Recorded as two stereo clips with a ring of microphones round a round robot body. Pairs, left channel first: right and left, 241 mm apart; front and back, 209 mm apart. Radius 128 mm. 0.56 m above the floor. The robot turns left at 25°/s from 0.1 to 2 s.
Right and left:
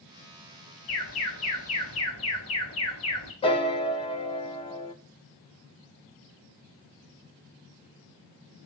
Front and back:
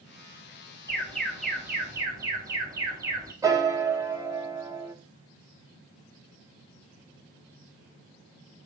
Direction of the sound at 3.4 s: 125° right.